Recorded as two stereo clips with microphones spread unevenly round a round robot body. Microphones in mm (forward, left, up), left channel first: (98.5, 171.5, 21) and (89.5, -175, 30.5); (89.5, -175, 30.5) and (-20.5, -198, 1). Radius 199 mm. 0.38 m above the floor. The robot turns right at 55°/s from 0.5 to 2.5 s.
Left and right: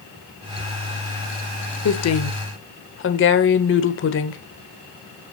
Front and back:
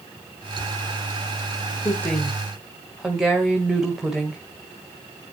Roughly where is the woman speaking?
Left.